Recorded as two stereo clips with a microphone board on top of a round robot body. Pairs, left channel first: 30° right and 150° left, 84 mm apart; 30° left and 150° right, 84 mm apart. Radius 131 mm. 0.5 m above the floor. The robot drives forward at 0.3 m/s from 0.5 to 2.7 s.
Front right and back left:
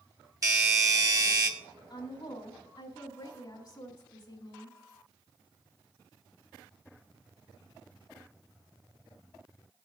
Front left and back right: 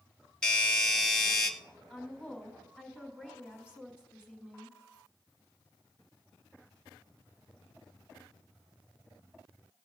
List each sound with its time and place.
0.4 s a doorbell: 110° left, 2 m; by 1.5 s 115° left, 2 m
1.9 s a woman speaking: 65° right, 3.5 m; by 4.8 s 70° right, 3.5 m